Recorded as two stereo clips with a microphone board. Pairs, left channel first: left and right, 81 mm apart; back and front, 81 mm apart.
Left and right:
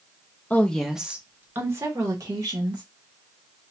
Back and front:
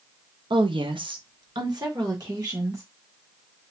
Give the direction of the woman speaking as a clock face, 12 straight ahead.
11 o'clock.